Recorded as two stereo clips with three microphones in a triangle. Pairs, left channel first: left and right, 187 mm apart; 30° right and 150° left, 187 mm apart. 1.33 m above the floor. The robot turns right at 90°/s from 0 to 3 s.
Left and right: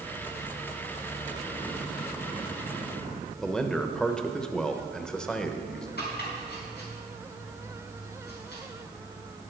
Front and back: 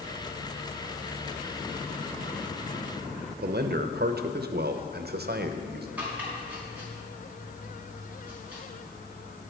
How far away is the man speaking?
About 0.8 m.